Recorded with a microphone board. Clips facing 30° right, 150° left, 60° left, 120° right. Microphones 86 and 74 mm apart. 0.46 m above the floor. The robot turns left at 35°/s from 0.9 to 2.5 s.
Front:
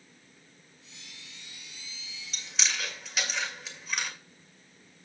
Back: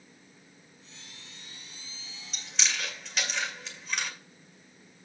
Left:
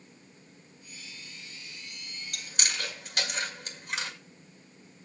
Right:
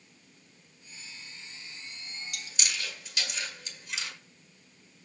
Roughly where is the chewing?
Ahead left.